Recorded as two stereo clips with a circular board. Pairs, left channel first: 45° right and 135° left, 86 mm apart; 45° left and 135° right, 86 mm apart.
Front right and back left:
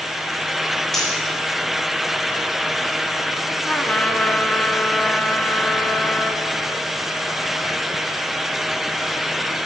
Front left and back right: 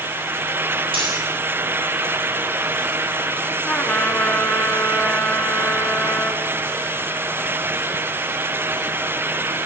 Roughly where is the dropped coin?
Behind right.